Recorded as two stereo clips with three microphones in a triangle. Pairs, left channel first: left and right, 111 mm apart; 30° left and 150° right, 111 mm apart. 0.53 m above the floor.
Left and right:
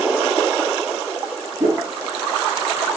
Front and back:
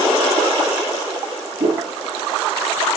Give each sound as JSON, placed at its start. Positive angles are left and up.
{"t": 1.6, "sound": "a whoosh", "azimuth_deg": -155, "distance_m": 4.0}